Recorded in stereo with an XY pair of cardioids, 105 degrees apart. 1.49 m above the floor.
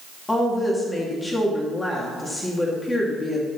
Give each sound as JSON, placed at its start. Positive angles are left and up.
{"t": 0.3, "sound": "a woman speaking", "azimuth_deg": 20, "distance_m": 2.5}